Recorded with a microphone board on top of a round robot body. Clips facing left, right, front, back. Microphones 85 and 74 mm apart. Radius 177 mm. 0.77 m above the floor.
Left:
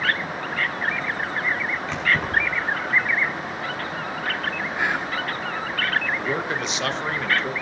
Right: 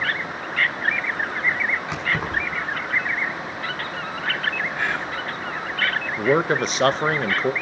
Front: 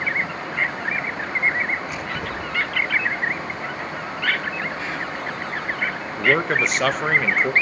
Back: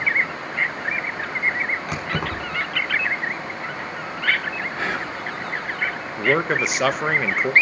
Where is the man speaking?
95° right, 1.1 m.